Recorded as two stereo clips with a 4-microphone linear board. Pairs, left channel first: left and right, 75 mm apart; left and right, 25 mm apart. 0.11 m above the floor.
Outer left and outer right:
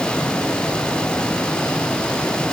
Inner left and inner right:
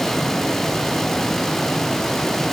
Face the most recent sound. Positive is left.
No sound to turn to.